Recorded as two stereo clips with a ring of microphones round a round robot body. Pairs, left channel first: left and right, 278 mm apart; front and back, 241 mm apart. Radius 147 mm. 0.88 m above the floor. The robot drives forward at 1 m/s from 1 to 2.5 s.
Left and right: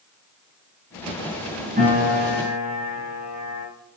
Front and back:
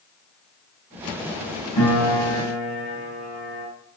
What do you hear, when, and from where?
1.8 s a piano: 25° right, 6 m; by 3.7 s 30° right, 5.5 m